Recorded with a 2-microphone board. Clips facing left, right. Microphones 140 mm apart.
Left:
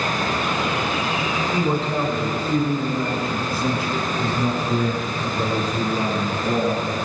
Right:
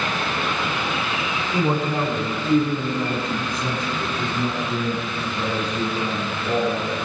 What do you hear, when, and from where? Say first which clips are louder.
1.5 s a man speaking: right 2 dB; 15° right (ahead or behind), 4 m; by 6.9 s 35° left (ahead or behind), 5 m